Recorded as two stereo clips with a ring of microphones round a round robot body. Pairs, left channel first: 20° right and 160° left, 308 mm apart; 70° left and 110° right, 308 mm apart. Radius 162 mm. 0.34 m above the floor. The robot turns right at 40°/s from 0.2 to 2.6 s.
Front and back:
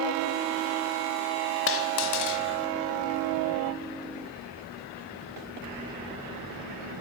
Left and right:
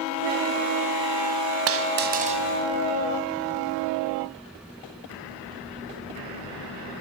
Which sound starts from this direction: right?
A dropped coin, at 1.7 s.